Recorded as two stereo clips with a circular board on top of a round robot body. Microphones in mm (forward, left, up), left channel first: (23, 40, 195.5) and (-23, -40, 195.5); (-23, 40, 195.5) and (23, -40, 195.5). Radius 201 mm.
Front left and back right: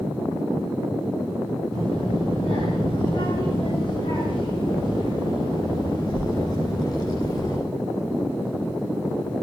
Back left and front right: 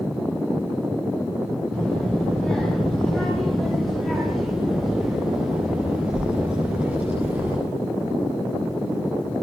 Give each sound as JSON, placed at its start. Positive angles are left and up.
{"t": 1.7, "sound": "a child speaking", "azimuth_deg": 45, "distance_m": 6.5}